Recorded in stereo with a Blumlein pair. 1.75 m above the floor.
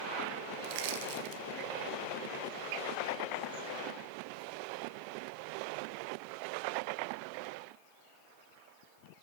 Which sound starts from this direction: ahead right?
Crushing, at 0.6 s.